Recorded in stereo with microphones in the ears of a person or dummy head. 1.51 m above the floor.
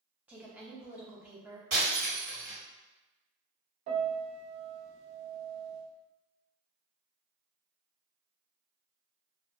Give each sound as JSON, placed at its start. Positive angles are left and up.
{"t": 0.3, "sound": "a woman speaking", "side_deg": -10, "distance_m": 0.6}
{"t": 1.7, "sound": "breaking glass", "side_deg": -45, "distance_m": 1.6}
{"t": 3.9, "sound": "a piano", "side_deg": -40, "distance_m": 0.8}